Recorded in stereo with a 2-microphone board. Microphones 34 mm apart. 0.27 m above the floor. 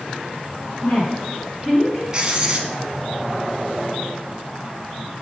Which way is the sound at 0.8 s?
30° left (ahead or behind).